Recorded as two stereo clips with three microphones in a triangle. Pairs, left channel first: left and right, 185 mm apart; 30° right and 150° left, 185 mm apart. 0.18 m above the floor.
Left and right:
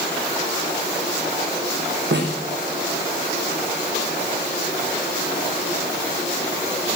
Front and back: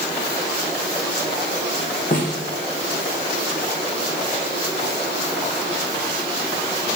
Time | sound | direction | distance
2.1 | a snare drum | 75° right | 6 m